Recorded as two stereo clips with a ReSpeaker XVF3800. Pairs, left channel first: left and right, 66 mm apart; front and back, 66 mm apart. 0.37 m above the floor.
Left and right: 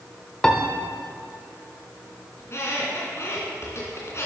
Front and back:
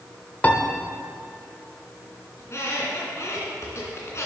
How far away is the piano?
About 0.9 m.